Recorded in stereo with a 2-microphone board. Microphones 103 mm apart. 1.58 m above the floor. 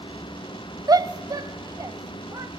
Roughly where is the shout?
Right.